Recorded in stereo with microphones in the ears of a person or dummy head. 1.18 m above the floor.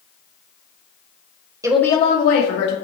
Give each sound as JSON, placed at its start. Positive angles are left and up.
{"t": 1.6, "sound": "a woman speaking", "side_deg": -15, "distance_m": 0.6}